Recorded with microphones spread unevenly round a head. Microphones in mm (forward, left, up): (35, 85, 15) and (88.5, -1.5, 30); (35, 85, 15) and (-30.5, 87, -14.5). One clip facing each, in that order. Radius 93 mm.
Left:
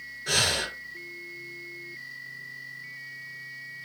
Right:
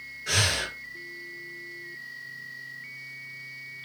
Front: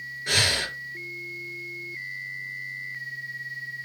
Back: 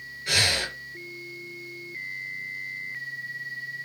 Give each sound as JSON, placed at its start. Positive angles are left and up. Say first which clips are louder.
{"t": 0.3, "sound": "breathing", "louder": "even, even", "azimuth_deg": 50, "distance_m": 4.0}